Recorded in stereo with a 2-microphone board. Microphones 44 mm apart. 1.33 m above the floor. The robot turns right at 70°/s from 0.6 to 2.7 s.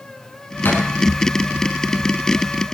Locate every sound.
0.7 s a thud: 50° left (ahead or behind), 6 m; by 0.8 s 60° left (ahead or behind), 6 m